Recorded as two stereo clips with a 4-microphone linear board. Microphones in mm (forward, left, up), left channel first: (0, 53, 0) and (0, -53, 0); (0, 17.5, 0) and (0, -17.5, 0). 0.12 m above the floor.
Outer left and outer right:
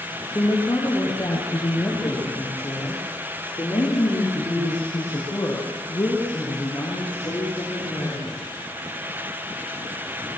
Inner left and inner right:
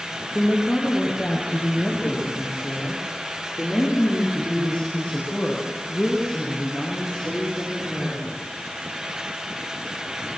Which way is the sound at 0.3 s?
20° left (ahead or behind).